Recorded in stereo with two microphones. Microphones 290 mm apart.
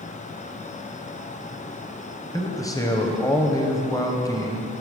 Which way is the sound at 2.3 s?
10° left (ahead or behind).